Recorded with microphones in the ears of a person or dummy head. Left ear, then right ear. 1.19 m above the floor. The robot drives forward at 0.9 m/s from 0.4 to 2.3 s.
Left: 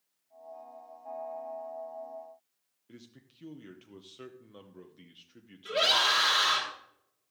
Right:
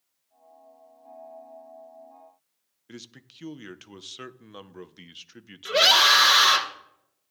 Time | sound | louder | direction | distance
2.9 | a man speaking | right 9 dB | 50° right (ahead or behind) | 0.8 m
5.7 | a scream | right 8 dB | 60° right (ahead or behind) | 3 m